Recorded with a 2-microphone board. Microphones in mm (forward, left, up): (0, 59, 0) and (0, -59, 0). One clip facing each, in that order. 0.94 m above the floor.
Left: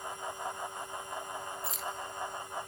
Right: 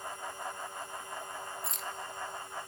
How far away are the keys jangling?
About 1.0 m.